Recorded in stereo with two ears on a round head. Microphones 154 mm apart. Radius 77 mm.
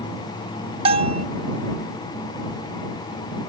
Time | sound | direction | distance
0.8 | a bell | 35° right (ahead or behind) | ?